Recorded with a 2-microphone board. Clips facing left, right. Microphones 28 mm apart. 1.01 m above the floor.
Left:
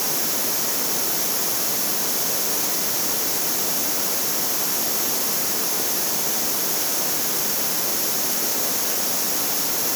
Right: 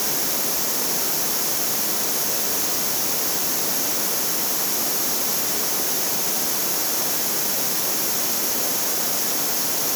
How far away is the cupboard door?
No cupboard door in this recording.